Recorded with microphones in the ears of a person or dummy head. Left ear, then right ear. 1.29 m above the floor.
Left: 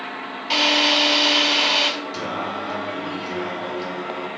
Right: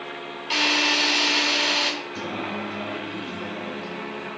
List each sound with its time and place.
0.5 s a drill: 10° left (ahead or behind), 3.5 m
2.1 s singing: 55° left (ahead or behind), 1.6 m